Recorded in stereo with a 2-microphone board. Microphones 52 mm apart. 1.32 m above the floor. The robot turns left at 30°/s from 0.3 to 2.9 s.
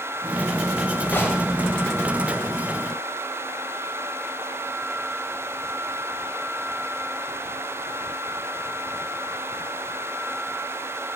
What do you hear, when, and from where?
1.1 s a gunshot: 45° left (ahead or behind), 2 m; by 1.4 s 50° left (ahead or behind), 2 m